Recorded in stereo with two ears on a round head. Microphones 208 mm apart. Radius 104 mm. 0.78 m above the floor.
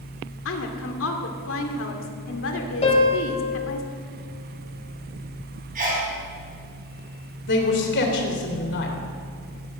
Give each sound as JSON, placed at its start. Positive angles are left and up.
{"t": 0.5, "sound": "a woman speaking", "side_deg": 60, "distance_m": 2.0}
{"t": 2.8, "sound": "a piano", "side_deg": 30, "distance_m": 3.5}
{"t": 5.8, "sound": "a sneeze", "side_deg": -40, "distance_m": 5.0}
{"t": 7.5, "sound": "a man speaking", "side_deg": 50, "distance_m": 3.0}